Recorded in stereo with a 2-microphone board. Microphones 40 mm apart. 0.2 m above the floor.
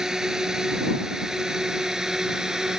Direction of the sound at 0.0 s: 15° right (ahead or behind).